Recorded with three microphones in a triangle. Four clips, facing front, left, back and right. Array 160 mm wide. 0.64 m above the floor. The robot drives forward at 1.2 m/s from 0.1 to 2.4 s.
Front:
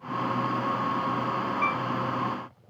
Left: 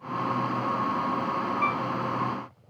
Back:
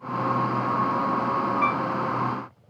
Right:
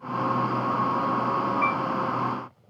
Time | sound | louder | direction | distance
1.6 | a piano | right 2 dB, back 4 dB | 160° right | ?